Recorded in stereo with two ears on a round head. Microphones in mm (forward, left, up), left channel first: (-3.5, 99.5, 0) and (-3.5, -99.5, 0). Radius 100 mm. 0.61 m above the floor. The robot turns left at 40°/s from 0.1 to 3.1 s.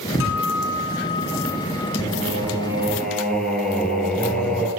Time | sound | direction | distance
0.2 | a guitar | 65° left | 8 m
2.0 | singing | 140° right | 6 m